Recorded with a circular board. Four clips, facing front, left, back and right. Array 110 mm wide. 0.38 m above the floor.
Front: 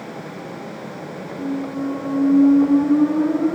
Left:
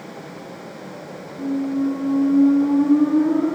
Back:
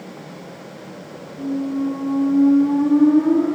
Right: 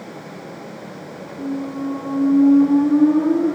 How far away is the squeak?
About 4.5 m.